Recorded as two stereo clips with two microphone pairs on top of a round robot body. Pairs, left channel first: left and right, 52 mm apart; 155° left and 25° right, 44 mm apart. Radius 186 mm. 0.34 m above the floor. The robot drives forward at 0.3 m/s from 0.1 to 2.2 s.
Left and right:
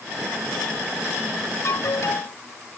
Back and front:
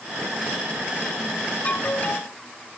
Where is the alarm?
105° left.